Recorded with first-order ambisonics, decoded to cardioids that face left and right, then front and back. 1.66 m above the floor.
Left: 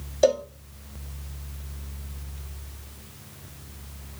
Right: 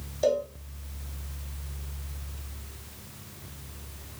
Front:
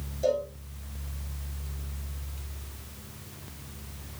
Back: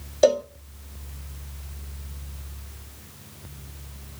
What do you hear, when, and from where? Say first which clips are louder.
0.2 s a cowbell: left 4 dB, back 8 dB; 150° left, 0.6 m